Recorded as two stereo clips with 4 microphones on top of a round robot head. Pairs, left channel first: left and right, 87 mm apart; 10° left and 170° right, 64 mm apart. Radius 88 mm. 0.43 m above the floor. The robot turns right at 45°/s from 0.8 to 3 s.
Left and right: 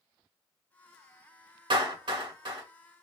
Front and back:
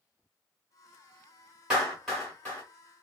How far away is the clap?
About 2.5 m.